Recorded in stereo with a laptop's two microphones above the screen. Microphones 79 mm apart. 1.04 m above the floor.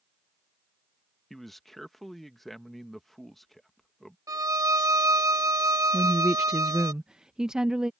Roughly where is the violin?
Right.